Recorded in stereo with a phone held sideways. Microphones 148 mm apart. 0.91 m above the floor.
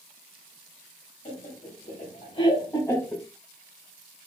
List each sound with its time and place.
1.2 s laughter: 55° left (ahead or behind), 1.5 m; by 3.2 s 5° left (ahead or behind), 0.7 m